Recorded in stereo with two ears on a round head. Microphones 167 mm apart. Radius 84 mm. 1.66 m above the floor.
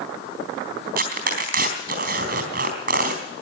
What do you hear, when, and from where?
1.0 s tearing paper: 45° right (ahead or behind), 3.5 m